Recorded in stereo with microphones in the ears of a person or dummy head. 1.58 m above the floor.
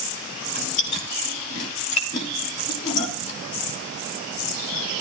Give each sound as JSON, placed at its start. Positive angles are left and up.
{"t": 0.5, "sound": "chewing", "side_deg": 35, "distance_m": 3.0}